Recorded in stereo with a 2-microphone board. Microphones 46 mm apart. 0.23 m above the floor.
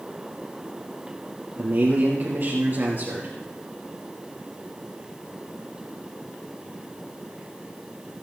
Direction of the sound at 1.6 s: 45° right (ahead or behind).